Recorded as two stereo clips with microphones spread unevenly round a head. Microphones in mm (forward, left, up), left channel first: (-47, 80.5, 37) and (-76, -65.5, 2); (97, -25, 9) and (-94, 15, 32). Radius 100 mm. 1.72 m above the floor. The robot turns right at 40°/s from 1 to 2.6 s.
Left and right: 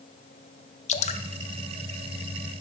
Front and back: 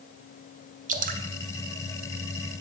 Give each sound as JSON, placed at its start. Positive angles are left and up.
{"t": 0.9, "sound": "dripping", "azimuth_deg": 115, "distance_m": 0.7}